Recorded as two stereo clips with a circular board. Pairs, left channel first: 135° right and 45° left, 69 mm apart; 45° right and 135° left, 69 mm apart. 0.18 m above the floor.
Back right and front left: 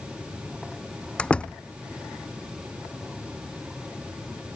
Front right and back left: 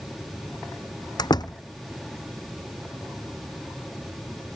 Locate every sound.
1.2 s a door slam: 60° right